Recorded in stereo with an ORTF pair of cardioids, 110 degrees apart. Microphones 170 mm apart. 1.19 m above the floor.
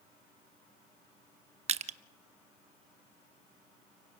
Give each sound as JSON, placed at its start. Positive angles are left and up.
{"t": 1.7, "sound": "crushing", "azimuth_deg": -40, "distance_m": 1.0}